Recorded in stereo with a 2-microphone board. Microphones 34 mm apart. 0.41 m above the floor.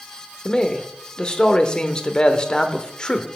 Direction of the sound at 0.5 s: 25° left (ahead or behind).